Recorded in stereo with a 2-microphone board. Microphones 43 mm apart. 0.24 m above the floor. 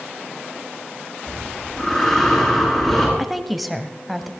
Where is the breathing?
10° left (ahead or behind), 8.5 m.